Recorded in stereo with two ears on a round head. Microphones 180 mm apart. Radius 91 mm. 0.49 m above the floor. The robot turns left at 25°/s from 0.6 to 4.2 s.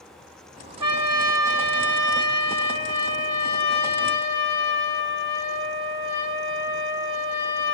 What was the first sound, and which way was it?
A trumpet, 165° right.